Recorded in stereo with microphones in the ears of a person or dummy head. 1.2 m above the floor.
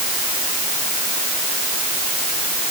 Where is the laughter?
No laughter in this recording.